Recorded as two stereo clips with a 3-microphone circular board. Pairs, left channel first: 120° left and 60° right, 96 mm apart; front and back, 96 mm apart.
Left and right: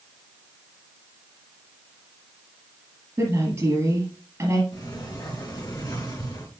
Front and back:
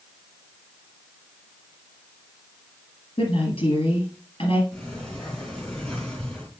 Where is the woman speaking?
Straight ahead, 5.5 m.